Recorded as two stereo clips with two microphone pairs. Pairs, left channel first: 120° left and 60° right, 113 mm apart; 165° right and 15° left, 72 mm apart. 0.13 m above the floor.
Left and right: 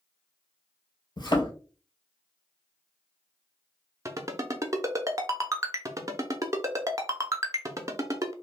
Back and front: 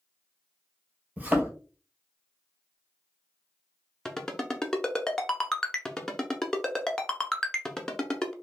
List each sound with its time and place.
1.2 s a thud: 80° left, 0.8 m
4.0 s a ringtone: 90° right, 0.5 m